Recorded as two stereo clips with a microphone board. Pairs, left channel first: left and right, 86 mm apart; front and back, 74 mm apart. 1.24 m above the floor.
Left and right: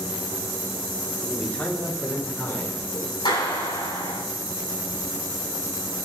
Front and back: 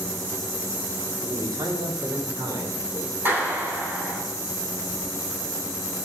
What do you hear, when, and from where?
1.2 s a man speaking: 170° left, 2.5 m; by 3.1 s 145° left, 5 m
3.2 s a clap: 115° left, 9 m